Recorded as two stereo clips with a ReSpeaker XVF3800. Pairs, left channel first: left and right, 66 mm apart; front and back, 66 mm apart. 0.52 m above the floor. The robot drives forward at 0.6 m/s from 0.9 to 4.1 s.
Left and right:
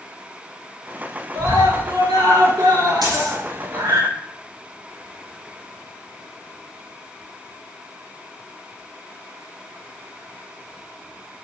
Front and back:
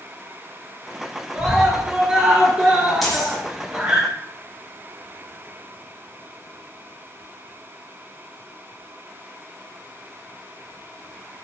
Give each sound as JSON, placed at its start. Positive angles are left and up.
{"t": 1.4, "sound": "a scream", "azimuth_deg": -100, "distance_m": 9.0}
{"t": 3.0, "sound": "a dropped coin", "azimuth_deg": -90, "distance_m": 7.0}